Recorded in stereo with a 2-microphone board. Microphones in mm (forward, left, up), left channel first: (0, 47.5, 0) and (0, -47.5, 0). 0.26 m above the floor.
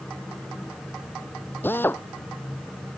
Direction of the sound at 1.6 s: 20° left (ahead or behind).